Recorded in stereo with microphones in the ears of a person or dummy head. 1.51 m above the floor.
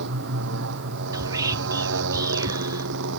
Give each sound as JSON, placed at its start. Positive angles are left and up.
{"t": 0.0, "sound": "a motorcycle", "side_deg": -60}
{"t": 1.1, "sound": "whispering", "side_deg": -15}